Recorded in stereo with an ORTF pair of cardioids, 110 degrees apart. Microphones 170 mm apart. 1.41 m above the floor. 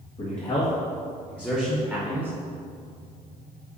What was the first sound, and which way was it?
A man speaking, 35° left.